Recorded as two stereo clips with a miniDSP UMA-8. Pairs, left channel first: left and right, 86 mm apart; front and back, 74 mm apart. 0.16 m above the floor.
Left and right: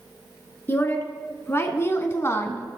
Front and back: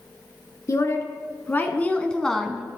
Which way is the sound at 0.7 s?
35° left.